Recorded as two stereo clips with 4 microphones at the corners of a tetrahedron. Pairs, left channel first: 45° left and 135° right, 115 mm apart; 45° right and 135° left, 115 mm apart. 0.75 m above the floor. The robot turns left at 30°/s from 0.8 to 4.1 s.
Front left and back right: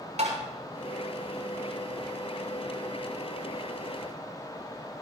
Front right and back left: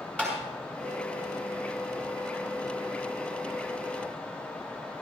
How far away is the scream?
I don't hear a scream.